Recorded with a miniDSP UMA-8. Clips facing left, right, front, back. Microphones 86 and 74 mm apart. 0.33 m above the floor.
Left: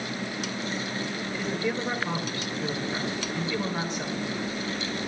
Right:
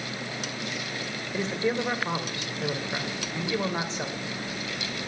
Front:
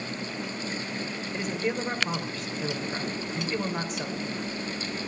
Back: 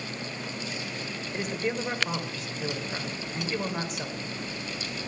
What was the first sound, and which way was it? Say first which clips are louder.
A man speaking: right 3 dB, front 1 dB; 95° right.